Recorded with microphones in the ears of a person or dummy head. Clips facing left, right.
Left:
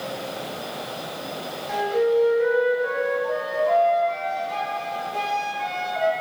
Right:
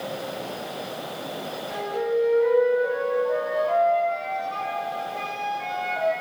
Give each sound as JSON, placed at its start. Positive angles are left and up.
{"t": 1.7, "sound": "a flute", "side_deg": 75, "distance_m": 2.5}